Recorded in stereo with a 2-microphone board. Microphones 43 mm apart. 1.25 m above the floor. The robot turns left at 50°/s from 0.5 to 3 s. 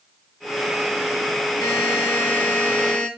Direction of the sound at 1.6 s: 85° left.